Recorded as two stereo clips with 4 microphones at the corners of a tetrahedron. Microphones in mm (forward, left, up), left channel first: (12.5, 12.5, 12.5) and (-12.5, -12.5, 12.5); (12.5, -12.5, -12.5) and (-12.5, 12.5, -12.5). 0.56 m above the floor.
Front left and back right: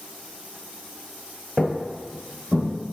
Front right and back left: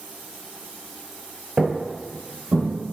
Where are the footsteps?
130° left, 0.5 m; by 2.7 s 140° left, 1.8 m.